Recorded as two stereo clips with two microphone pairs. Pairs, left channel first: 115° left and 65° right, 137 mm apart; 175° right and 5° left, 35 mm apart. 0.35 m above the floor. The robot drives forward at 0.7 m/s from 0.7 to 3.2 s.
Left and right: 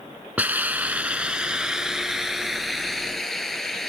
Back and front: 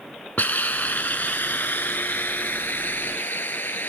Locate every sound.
0.4 s a hiss: 145° right; by 3.9 s 160° right